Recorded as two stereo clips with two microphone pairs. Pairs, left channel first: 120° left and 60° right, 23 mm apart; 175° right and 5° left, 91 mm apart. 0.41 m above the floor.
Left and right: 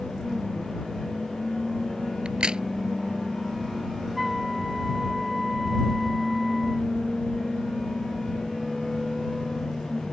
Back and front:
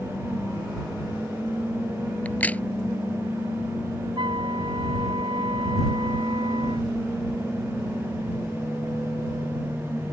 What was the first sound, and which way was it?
A crack, 100° right.